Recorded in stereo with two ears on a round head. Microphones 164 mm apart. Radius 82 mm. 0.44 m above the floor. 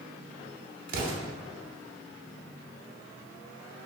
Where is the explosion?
50° right (ahead or behind), 0.5 m.